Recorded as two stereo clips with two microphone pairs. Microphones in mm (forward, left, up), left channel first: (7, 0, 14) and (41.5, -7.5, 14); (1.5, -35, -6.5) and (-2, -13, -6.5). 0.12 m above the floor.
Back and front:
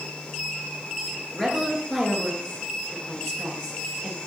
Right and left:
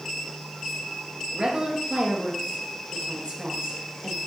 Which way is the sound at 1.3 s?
90° left.